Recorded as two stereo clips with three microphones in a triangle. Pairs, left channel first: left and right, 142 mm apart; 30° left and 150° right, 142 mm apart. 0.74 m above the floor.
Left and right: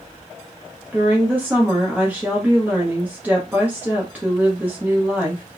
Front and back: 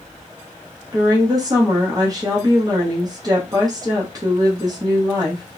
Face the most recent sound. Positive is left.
turn(degrees=-155)